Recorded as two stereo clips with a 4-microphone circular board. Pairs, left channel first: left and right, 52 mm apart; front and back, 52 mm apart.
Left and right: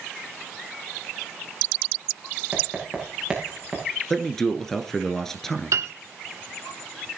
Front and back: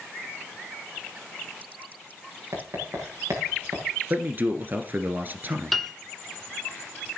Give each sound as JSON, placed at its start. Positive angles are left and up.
{"t": 2.5, "sound": "writing", "azimuth_deg": -175, "distance_m": 9.0}
{"t": 4.1, "sound": "a man speaking", "azimuth_deg": 165, "distance_m": 1.4}
{"t": 5.7, "sound": "a piano", "azimuth_deg": -85, "distance_m": 1.1}